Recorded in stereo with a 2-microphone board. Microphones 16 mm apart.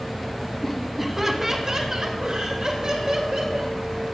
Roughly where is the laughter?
Centre.